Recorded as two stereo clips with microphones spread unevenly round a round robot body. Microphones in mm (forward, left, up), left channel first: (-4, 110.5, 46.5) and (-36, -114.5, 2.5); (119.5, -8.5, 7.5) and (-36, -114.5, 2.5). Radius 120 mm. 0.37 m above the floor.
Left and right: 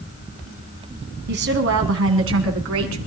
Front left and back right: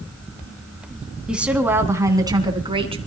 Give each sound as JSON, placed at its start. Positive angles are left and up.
{"t": 1.3, "sound": "a woman speaking", "azimuth_deg": -60, "distance_m": 3.5}